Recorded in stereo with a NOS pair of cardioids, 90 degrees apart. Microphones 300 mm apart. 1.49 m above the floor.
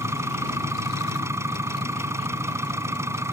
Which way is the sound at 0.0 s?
10° right.